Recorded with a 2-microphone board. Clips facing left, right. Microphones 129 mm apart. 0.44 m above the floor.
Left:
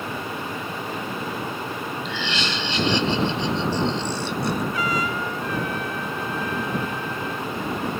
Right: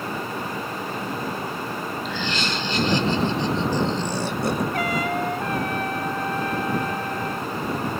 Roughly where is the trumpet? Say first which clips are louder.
Right 1 dB; right.